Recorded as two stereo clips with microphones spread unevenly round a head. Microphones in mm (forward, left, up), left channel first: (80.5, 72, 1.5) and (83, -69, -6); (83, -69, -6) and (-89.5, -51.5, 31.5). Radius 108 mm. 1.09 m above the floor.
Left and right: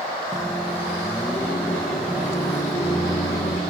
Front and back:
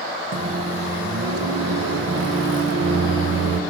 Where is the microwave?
175° right, 0.5 m.